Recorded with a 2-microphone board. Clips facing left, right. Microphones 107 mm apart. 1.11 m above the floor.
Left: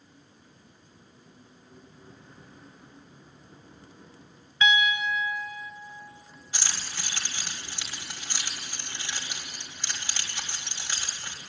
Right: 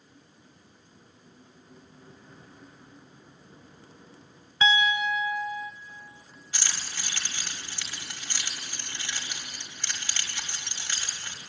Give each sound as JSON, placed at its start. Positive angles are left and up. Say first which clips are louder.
{"t": 4.6, "sound": "a piano", "louder": "right 1 dB", "side_deg": -30, "distance_m": 0.6}
{"t": 6.5, "sound": "keys jangling", "louder": "left 1 dB", "side_deg": 15, "distance_m": 1.9}